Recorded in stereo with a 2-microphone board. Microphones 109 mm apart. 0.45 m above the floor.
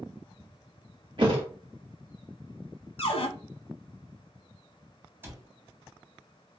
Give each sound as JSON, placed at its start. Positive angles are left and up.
{"t": 1.2, "sound": "a thud", "side_deg": -50, "distance_m": 1.1}
{"t": 3.0, "sound": "a cupboard door", "side_deg": 75, "distance_m": 0.8}
{"t": 5.2, "sound": "a cupboard door", "side_deg": -20, "distance_m": 1.1}